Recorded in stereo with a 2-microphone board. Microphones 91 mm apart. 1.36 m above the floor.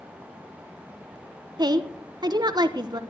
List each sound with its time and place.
1.6 s a woman speaking: 50° right (ahead or behind), 0.9 m